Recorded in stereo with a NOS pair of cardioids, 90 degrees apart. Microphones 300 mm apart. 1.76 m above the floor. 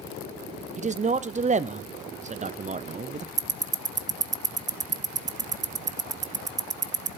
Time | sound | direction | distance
0.8 | a man speaking | 25° right | 0.8 m
3.4 | ticking | 25° right | 0.7 m